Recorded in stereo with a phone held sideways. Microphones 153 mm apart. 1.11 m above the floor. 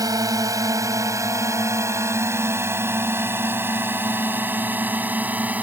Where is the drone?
25° right (ahead or behind); by 5.6 s 10° right (ahead or behind).